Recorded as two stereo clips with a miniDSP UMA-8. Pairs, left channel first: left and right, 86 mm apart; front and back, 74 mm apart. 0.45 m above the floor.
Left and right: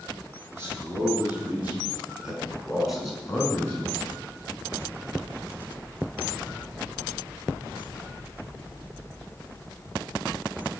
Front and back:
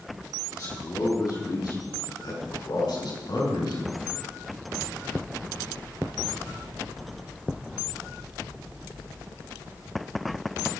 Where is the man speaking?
30° right, 5.5 m; by 4.0 s 15° left, 4.5 m.